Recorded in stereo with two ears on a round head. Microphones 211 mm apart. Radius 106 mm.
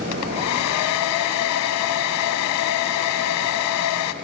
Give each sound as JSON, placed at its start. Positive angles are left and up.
{"t": 0.1, "sound": "a hair dryer", "side_deg": 80, "distance_m": 1.0}